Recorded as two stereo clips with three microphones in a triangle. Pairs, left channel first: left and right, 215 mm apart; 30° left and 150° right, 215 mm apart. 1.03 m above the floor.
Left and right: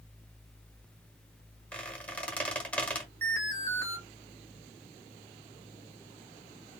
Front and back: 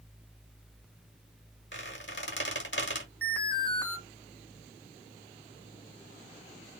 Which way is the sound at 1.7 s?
5° left.